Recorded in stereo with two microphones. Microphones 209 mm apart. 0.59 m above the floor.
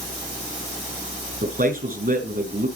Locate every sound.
1.4 s a man speaking: 45° right (ahead or behind), 5 m